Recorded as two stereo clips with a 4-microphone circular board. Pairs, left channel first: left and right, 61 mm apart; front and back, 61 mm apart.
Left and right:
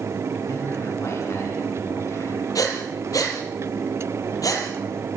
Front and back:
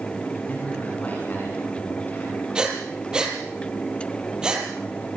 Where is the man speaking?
60° left, 7.5 m.